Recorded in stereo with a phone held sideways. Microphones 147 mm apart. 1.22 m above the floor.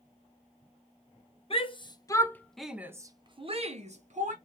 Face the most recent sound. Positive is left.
turn(degrees=-65)  # may be behind; listen again after turning